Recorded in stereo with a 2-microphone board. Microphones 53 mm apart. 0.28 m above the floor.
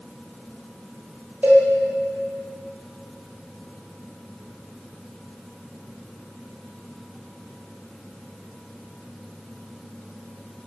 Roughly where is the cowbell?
Right.